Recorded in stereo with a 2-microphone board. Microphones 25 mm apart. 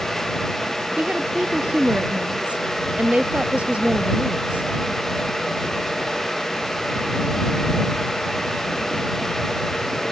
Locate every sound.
1.0 s a woman speaking: 65° right (ahead or behind)